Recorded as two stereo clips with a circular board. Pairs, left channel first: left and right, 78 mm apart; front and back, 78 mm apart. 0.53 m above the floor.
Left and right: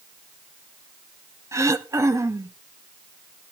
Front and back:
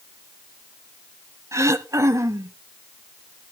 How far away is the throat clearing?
About 0.5 m.